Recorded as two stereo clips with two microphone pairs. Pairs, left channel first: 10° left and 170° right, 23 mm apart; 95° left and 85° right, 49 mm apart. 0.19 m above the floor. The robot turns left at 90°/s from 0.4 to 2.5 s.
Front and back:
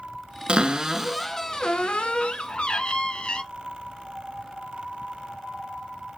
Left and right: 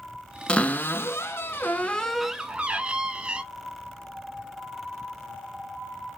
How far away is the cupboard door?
About 0.6 m.